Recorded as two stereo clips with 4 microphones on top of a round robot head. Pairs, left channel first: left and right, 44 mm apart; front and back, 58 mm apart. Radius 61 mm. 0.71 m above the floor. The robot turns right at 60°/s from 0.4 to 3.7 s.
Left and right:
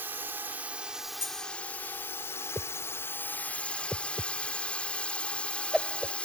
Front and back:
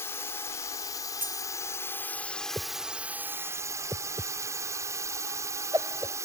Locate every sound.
0.0 s a drone: 45° right; by 6.2 s 155° left
1.2 s cutlery clinking: 120° left; by 1.4 s 135° left
2.5 s a whoosh: 120° left; by 6.2 s 170° right